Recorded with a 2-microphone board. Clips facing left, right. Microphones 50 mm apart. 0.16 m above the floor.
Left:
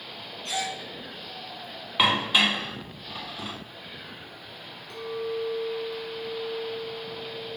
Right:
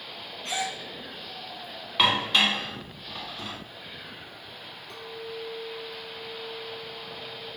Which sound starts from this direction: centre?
Dishes clattering, at 2.0 s.